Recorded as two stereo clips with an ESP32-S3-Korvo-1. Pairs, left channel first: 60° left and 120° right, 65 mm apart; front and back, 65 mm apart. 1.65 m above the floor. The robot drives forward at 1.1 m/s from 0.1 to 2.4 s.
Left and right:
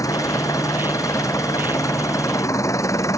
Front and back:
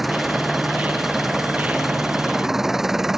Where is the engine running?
90° left; by 3.2 s 95° left.